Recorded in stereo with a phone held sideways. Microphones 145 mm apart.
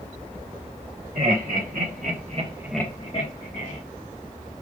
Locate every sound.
1.1 s laughter: 80° right, 2 m; by 3.8 s 70° left (ahead or behind), 1.5 m